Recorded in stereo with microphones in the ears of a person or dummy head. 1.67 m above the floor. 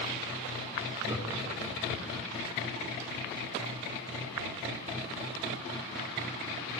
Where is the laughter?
20° right (ahead or behind), 3.5 m; by 2.3 s 35° right (ahead or behind), 4 m.